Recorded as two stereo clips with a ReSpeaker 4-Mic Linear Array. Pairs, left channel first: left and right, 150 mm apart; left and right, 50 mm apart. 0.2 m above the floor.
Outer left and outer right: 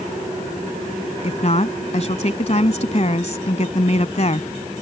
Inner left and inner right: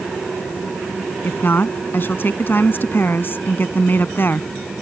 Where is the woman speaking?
50° left (ahead or behind).